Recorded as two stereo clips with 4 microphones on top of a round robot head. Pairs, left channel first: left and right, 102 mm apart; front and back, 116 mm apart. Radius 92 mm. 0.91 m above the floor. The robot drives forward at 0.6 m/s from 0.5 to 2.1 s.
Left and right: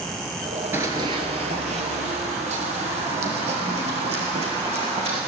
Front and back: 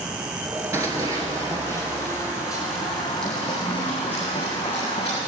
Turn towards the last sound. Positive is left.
turn(degrees=-75)